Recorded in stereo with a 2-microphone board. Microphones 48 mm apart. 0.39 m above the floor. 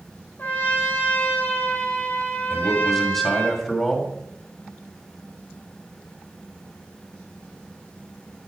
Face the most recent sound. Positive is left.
turn(degrees=0)  # may be behind; listen again after turning